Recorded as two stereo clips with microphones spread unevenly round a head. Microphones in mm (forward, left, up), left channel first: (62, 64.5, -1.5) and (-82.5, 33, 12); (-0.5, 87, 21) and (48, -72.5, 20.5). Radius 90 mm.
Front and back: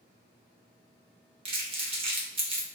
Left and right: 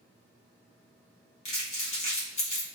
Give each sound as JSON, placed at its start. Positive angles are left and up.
{"t": 1.4, "sound": "crumpling", "azimuth_deg": 155, "distance_m": 0.9}